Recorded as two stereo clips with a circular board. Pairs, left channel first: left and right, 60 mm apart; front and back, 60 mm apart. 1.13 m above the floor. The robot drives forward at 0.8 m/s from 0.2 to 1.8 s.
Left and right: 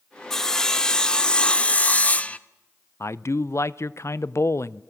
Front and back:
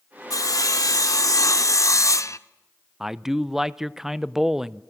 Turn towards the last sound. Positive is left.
turn(degrees=100)